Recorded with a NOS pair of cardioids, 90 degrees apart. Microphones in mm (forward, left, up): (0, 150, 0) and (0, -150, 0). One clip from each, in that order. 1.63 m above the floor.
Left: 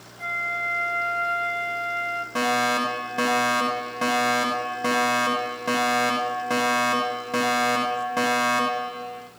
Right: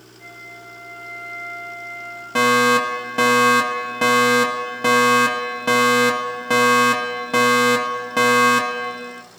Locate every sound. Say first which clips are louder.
0.2 s a flute: left 13 dB; 70° left, 5 m
2.4 s a fire alarm: right 8 dB; 45° right, 5 m